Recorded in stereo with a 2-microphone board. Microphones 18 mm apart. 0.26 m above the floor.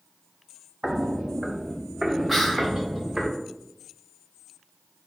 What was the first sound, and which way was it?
Footsteps, 60° right (ahead or behind).